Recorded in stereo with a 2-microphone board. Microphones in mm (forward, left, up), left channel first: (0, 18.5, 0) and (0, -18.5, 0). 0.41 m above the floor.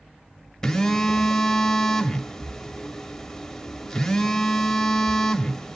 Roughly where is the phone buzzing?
Centre.